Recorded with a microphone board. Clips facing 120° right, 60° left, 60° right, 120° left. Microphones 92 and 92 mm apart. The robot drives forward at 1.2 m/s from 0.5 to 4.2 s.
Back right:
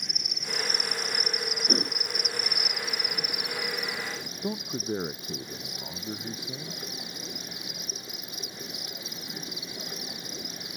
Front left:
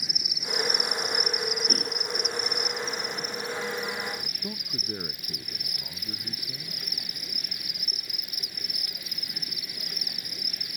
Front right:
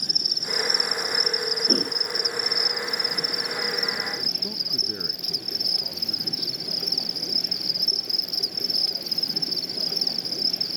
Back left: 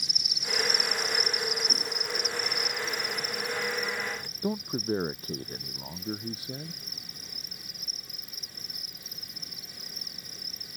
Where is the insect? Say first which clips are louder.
Front left 1 dB, front right 4 dB; 25° right; by 10.8 s 55° right.